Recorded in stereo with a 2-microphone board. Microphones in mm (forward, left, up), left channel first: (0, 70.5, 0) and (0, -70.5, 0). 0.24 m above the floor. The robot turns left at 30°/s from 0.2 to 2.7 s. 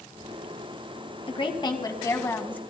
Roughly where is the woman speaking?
Ahead left.